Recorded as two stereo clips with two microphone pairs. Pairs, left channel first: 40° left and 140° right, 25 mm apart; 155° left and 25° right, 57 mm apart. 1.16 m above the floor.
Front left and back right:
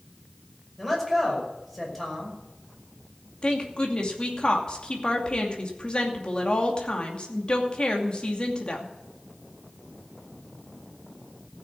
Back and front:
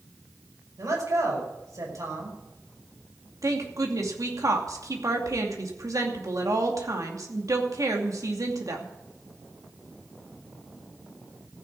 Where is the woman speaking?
15° right, 2.5 m.